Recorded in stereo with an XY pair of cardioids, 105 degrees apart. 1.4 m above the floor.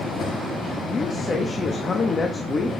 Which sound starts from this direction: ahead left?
A man speaking, at 0.9 s.